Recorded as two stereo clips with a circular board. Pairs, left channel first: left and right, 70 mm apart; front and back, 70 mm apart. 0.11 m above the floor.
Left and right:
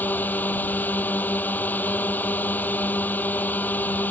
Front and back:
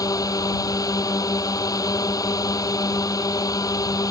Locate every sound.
0.0 s a drone: 25° left